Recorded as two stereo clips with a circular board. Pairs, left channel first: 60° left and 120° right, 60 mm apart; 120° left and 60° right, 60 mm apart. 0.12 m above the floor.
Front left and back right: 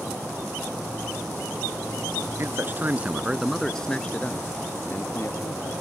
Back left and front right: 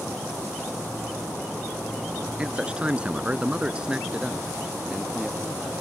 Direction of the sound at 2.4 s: 125° right.